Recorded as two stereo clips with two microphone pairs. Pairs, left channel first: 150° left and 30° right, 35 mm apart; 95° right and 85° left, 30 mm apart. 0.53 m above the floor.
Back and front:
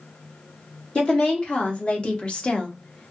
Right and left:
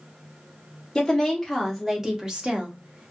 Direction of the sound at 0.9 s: 160° right.